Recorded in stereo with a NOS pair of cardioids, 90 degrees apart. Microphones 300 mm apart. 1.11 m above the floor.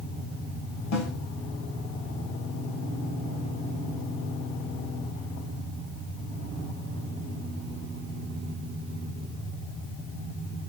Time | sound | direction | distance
0.9 | a snare drum | 65° left | 3.5 m